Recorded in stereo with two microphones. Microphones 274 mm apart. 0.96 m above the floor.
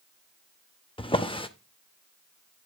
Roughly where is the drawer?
Centre.